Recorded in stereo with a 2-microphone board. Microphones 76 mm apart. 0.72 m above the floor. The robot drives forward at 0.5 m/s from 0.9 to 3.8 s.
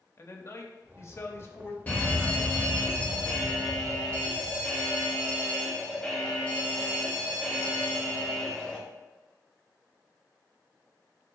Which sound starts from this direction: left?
A man speaking, at 0.2 s.